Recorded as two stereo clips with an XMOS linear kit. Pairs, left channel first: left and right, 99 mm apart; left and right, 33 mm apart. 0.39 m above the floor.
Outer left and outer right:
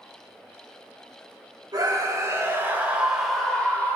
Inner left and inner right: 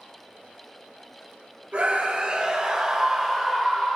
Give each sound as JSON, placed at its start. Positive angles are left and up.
{"t": 1.7, "sound": "a scream", "side_deg": -40, "distance_m": 2.0}